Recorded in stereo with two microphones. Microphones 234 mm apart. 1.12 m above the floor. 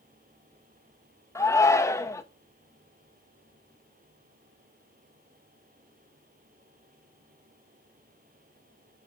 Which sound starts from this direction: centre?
A shout, at 1.4 s.